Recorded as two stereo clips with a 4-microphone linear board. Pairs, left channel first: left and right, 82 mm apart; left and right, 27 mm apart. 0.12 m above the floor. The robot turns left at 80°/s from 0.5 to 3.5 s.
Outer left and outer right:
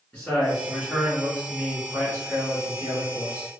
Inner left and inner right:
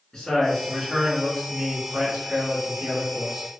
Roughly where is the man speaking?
Centre.